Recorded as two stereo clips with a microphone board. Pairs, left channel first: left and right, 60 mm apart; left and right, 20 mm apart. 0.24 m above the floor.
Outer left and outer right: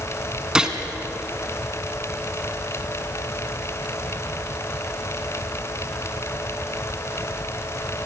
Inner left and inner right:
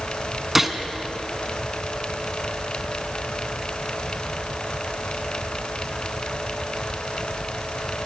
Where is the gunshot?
15° right (ahead or behind), 1.3 m.